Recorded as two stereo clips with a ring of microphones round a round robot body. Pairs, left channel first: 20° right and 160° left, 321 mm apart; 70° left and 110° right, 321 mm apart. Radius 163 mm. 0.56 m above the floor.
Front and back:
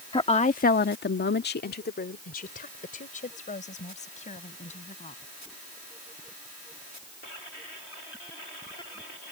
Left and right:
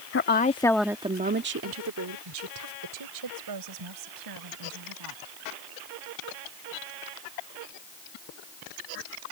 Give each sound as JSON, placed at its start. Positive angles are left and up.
{"t": 0.1, "sound": "a woman speaking", "azimuth_deg": 45}